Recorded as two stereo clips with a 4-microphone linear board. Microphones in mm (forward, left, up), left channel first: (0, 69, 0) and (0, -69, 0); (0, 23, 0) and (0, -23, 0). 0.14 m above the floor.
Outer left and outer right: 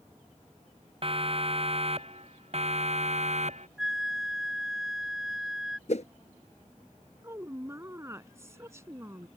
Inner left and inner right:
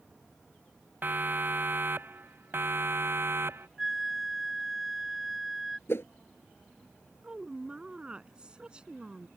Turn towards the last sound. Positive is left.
turn(degrees=-20)  # may be behind; listen again after turning